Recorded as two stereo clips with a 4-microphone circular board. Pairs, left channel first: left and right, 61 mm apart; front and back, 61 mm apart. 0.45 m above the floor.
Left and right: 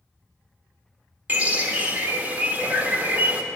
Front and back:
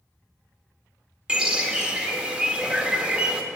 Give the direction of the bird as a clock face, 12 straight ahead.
4 o'clock.